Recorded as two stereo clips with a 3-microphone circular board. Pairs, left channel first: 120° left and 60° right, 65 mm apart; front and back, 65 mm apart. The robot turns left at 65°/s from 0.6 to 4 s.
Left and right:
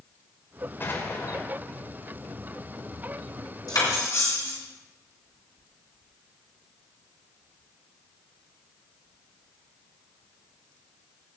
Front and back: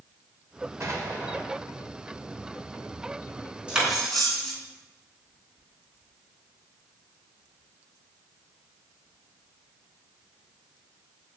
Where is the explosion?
170° left, 2 m; by 1.4 s 125° left, 2 m.